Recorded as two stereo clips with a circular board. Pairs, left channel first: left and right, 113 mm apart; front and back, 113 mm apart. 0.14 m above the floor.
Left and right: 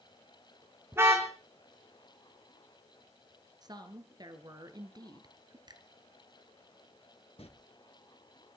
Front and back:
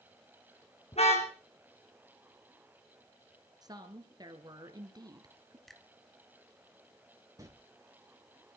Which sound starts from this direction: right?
A finger snap, at 5.7 s.